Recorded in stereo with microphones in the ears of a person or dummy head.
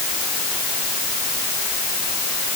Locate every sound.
Only background noise.